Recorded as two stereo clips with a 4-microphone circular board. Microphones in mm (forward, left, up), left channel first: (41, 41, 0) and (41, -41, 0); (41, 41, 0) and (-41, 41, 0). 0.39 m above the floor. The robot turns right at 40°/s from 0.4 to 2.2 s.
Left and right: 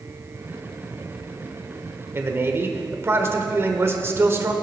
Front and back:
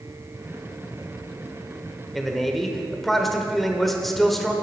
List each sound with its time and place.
2.1 s a man speaking: 90° right, 1.0 m; by 4.5 s 85° right, 1.0 m